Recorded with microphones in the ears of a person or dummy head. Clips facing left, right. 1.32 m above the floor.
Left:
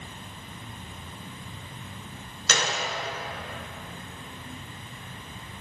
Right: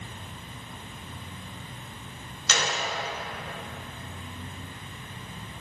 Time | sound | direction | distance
2.5 | a gunshot | 50° left (ahead or behind) | 1.2 m